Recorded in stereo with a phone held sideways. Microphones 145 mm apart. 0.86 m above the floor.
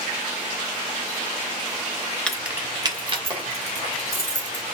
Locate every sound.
2.3 s keys jangling: 10° left (ahead or behind), 0.6 m; by 4.6 s 55° right (ahead or behind), 2 m